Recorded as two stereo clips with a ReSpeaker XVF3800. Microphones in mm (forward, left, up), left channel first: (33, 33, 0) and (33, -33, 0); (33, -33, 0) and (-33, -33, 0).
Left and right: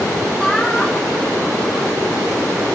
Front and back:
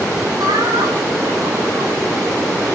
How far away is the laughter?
About 7 m.